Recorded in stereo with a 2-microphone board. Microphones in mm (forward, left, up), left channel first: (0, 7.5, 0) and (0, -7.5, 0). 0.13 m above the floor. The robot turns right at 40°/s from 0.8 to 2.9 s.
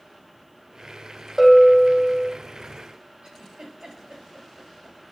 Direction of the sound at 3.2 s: 65° right (ahead or behind).